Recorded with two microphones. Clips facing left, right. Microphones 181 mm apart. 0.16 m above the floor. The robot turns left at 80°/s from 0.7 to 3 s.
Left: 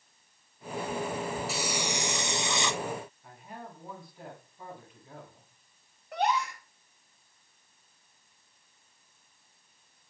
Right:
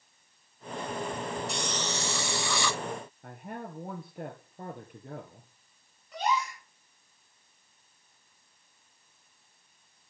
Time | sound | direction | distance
1.5 | a hiss | 5° left (ahead or behind) | 0.6 m
3.2 | a man speaking | 55° right (ahead or behind) | 3 m
6.1 | a gasp | 60° left (ahead or behind) | 7 m